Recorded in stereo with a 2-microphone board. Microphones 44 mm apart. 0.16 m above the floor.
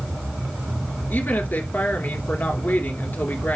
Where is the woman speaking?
45° left (ahead or behind), 2.5 m.